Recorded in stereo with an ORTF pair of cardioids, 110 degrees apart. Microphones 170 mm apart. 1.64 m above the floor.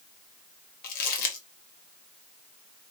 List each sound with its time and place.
0.8 s crumpling: 65° left, 1.0 m